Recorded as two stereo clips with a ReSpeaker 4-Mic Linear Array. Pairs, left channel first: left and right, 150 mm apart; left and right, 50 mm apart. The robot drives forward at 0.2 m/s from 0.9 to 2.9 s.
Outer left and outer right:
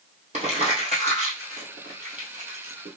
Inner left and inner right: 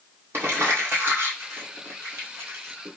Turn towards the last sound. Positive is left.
turn(degrees=-60)  # may be behind; listen again after turning